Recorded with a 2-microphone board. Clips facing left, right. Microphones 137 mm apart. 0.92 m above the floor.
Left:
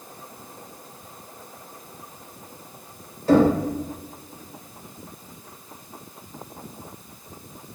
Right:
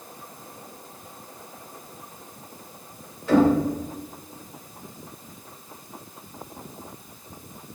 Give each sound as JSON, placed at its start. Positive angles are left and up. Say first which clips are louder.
{"t": 3.3, "sound": "knocking", "louder": "left 1 dB", "side_deg": 35, "distance_m": 2.5}